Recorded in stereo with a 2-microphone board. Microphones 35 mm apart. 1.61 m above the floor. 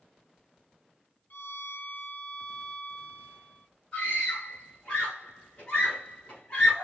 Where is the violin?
70° left (ahead or behind), 0.8 m.